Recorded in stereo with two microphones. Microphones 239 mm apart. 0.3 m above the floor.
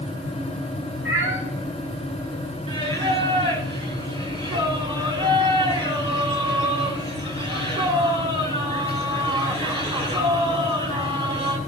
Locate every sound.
1.1 s a cat meowing: 60° right (ahead or behind), 5.5 m
2.7 s singing: 20° right (ahead or behind), 1.4 m